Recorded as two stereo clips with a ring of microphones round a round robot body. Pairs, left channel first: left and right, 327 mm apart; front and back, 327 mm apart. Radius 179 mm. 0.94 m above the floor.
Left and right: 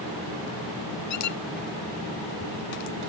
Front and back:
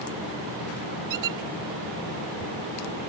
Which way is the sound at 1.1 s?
140° left.